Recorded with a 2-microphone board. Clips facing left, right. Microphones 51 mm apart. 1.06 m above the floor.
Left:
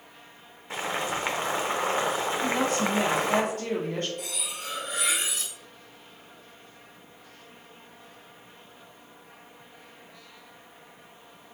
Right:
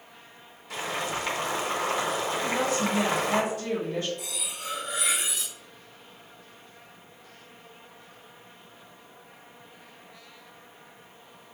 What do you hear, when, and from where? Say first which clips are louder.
0.7 s boiling: left 1 dB; 30° left (ahead or behind), 0.9 m
2.4 s a woman speaking: left 1 dB; 55° left (ahead or behind), 2 m
4.2 s cutlery clinking: left 1 dB; 50° left (ahead or behind), 1.8 m